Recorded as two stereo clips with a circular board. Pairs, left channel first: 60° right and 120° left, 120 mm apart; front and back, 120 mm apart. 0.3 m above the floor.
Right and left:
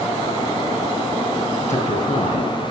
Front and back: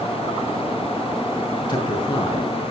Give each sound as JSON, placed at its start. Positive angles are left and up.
{"t": 1.7, "sound": "a man speaking", "azimuth_deg": -50, "distance_m": 4.5}